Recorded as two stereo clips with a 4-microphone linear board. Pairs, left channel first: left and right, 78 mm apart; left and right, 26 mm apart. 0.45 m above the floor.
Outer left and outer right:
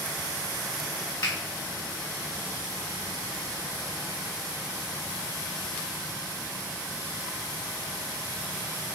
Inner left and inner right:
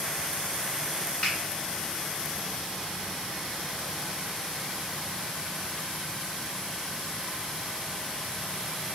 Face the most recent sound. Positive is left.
turn(degrees=45)  # may be behind; listen again after turning